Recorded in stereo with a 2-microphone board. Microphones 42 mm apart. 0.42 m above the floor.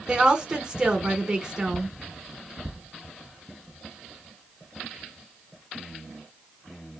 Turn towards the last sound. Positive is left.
turn(degrees=-20)  # may be behind; listen again after turning